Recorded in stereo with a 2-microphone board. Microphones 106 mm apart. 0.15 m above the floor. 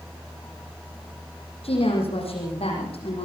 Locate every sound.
1.6 s a woman speaking: 80° left, 7.5 m